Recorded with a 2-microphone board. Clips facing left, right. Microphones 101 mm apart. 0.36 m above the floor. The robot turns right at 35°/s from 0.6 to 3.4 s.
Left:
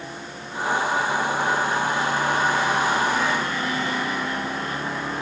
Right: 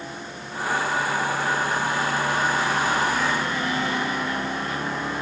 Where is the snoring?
No snoring in this recording.